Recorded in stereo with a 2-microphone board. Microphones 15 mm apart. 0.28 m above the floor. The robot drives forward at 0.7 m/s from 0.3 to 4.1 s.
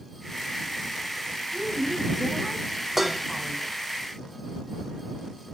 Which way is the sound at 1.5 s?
15° right (ahead or behind).